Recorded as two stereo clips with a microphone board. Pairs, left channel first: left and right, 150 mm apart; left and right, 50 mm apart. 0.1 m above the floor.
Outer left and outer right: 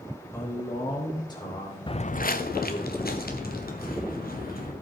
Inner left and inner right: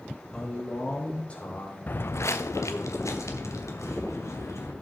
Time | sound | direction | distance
0.3 | a man speaking | 15° left (ahead or behind) | 4 m
1.9 | footsteps | 35° left (ahead or behind) | 0.5 m